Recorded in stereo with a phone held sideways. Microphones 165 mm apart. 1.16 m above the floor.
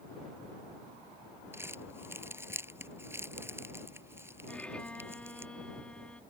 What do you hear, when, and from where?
1.5 s crumpling: 15° right (ahead or behind)
4.5 s a violin: 5° left (ahead or behind)